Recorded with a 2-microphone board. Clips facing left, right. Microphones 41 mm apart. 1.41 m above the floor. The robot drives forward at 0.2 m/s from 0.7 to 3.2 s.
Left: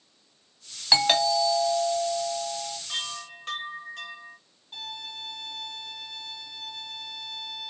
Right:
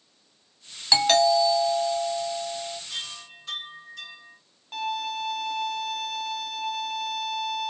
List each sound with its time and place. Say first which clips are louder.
0.9 s a doorbell: right 3 dB; 10° left (ahead or behind), 1.2 m
2.9 s a chime: left 3 dB; 60° left (ahead or behind), 1.9 m
4.7 s a violin: right 9 dB; 85° right, 1.1 m